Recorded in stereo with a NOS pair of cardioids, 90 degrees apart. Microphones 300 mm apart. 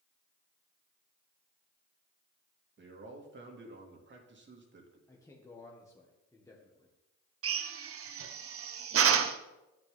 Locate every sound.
2.8 s a man speaking: 40° right, 2.5 m
5.1 s a man speaking: 10° left, 1.7 m
7.4 s a drill: 50° right, 0.9 m